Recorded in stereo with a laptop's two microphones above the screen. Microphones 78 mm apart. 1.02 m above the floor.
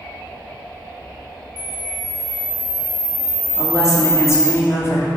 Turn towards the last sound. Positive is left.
turn(degrees=35)  # may be behind; listen again after turning